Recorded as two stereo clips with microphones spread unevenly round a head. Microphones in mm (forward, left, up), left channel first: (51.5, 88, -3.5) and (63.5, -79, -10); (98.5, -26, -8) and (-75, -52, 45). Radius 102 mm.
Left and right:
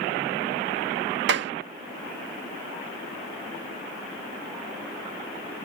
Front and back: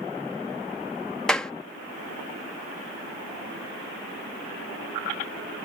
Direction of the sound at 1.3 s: 80° right.